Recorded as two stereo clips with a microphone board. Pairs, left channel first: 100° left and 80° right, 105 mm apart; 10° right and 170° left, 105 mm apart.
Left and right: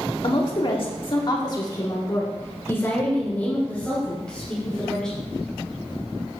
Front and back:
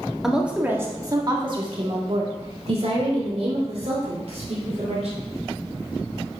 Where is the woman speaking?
85° left, 1.8 m; by 5.2 s 175° right, 5 m.